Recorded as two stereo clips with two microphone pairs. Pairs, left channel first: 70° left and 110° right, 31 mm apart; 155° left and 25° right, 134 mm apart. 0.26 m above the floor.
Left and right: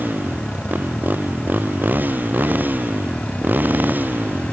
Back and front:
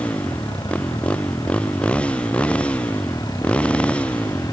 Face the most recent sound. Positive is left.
turn(degrees=-125)